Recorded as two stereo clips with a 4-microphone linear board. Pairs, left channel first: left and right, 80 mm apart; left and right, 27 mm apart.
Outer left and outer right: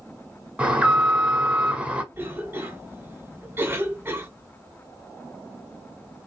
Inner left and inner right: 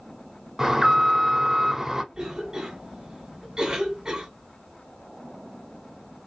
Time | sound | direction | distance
0.6 | an alarm | 15° right (ahead or behind) | 0.9 m
2.1 | a cough | 30° right (ahead or behind) | 1.4 m